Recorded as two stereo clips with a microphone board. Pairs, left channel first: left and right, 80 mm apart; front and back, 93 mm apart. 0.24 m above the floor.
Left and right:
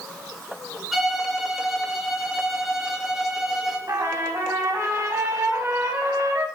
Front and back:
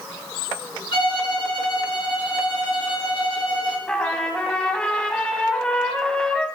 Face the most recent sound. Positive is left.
turn(degrees=-75)